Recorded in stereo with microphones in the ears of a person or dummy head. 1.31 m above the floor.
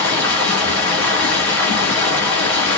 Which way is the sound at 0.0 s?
10° left (ahead or behind).